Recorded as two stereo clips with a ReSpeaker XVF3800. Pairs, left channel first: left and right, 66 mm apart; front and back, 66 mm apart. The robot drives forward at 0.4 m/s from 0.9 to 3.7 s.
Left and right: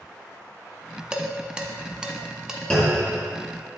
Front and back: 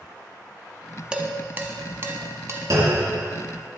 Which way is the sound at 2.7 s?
160° left.